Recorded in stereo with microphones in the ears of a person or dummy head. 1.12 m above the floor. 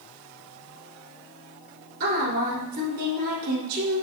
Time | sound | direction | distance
2.0 | a woman speaking | 45° right (ahead or behind) | 3.5 m